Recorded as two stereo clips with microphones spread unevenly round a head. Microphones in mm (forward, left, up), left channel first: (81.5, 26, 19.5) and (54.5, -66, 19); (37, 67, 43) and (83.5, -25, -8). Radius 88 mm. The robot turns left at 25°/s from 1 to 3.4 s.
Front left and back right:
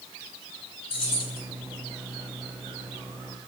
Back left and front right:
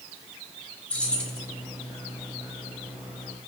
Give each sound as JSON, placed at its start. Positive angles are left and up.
{"t": 0.9, "sound": "keys jangling", "azimuth_deg": 50, "distance_m": 1.8}